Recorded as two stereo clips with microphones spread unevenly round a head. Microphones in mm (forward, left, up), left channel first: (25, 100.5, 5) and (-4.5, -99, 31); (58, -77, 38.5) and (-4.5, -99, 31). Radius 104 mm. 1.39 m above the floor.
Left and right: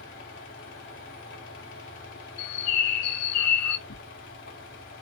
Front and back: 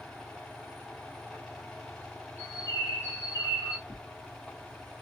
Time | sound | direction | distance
0.0 | a fan | 105° left | 2 m
2.4 | a bird | 95° left | 0.7 m
3.9 | tearing paper | 100° left | 1.5 m